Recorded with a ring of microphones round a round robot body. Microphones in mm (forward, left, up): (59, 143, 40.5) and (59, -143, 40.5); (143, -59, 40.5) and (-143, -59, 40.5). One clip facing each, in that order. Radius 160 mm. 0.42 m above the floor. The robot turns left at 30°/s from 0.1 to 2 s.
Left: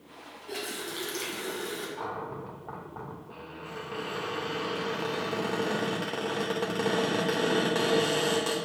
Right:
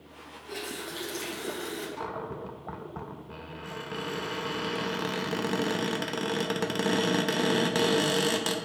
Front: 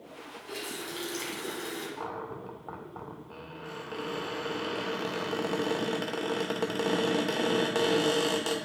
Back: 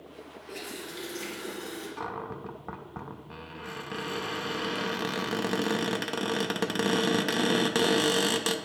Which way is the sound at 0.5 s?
25° left.